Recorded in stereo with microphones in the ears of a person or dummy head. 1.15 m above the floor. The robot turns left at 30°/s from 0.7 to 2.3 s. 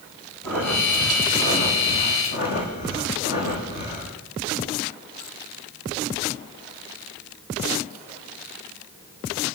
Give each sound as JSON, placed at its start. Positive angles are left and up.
{"t": 0.4, "sound": "breathing", "azimuth_deg": 175, "distance_m": 9.0}